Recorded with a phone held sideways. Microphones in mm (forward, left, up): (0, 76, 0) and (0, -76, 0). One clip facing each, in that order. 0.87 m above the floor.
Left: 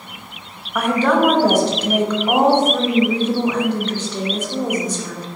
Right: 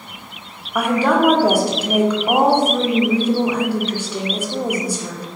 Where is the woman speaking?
10° right (ahead or behind), 0.6 m.